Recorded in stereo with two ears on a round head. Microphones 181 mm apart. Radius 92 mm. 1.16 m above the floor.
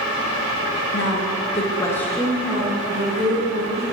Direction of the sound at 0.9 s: 60° left (ahead or behind).